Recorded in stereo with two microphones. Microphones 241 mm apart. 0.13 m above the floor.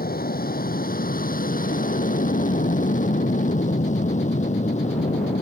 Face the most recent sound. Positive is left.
turn(degrees=30)  # may be behind; listen again after turning